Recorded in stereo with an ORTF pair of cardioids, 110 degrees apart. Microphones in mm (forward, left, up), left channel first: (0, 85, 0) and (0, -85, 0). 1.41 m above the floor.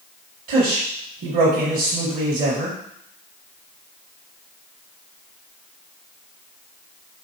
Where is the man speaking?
60° right, 1.5 m.